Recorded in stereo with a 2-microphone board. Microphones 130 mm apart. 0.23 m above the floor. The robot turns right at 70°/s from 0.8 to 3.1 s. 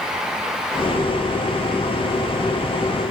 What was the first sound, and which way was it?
Only background noise.